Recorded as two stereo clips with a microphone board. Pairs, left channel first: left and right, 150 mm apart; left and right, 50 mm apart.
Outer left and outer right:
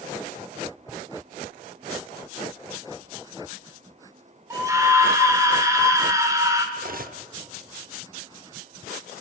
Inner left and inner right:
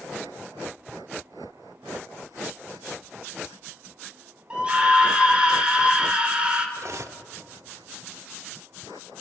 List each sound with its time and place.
4.5 s a scream: 20° right (ahead or behind), 2.5 m
6.8 s cutlery clinking: 65° right (ahead or behind), 0.8 m